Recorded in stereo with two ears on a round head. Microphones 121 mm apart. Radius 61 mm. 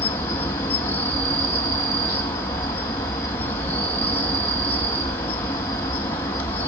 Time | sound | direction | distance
0.0 | an insect | 20° left (ahead or behind) | 1.3 m